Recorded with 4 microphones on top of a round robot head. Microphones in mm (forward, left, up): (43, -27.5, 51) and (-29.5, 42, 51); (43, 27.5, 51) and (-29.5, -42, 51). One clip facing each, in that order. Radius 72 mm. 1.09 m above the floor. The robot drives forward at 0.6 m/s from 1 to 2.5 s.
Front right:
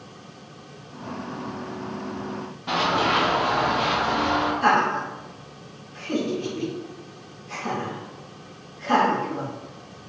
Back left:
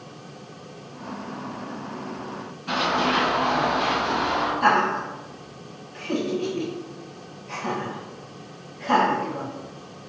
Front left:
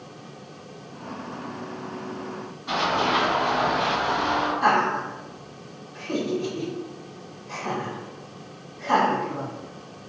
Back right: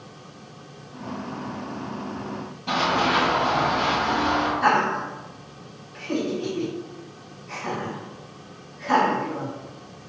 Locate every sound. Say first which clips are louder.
2.7 s running footsteps: front right 1 dB, back right 1 dB; 115° right, 1.7 m; by 4.5 s 170° right, 1.6 m
4.6 s laughter: back left 2 dB, front left 1 dB; 125° left, 1.0 m